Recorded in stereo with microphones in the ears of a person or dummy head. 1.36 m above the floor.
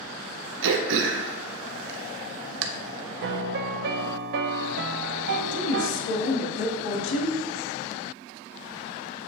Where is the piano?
55° right (ahead or behind), 0.6 m.